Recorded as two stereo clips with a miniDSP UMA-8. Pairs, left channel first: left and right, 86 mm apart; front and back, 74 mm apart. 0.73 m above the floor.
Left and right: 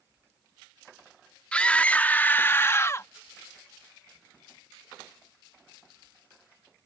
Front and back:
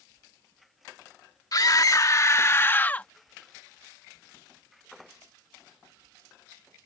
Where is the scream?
15° left; by 3.1 s 60° left.